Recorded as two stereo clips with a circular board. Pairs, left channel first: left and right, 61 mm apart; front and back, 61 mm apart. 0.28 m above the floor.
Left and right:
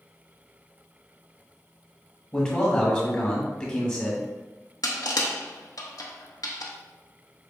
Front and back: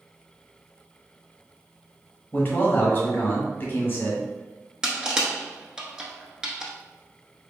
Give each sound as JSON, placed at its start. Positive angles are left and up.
{"t": 2.3, "sound": "a man speaking", "azimuth_deg": 25, "distance_m": 1.2}
{"t": 4.8, "sound": "crushing", "azimuth_deg": 105, "distance_m": 0.7}